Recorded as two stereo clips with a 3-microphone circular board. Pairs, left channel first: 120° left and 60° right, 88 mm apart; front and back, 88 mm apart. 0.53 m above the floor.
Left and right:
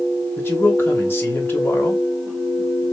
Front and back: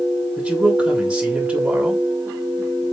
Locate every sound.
0.4 s a man speaking: 130° left, 1.0 m